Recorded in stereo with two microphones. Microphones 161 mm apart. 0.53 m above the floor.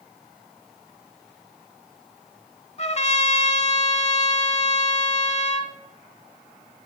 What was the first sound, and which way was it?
A trumpet, 40° left (ahead or behind).